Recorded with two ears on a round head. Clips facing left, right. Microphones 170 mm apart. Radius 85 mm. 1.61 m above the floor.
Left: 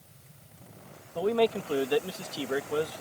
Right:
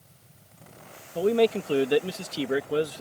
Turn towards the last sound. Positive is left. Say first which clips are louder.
# right 4 dB
turn(degrees=-30)  # may be behind; listen again after turning